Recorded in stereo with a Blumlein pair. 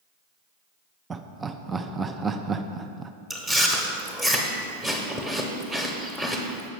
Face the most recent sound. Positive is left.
turn(degrees=-10)